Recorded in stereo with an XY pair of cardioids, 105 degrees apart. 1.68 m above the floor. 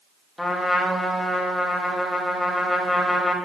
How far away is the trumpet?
About 3.5 m.